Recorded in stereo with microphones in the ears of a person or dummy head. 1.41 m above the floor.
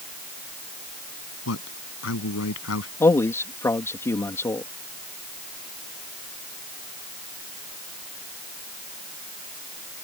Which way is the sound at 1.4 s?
80° left.